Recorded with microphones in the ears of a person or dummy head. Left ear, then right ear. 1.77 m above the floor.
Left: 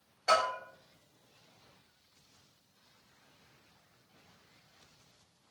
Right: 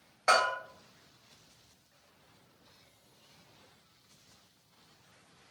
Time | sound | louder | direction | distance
0.3 | a bell | right 2 dB | 55° right (ahead or behind) | 1.5 m